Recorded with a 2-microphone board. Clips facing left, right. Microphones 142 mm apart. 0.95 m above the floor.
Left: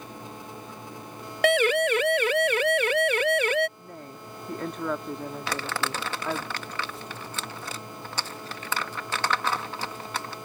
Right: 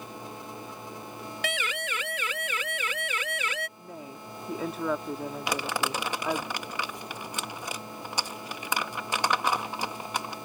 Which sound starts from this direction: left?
A siren, at 1.4 s.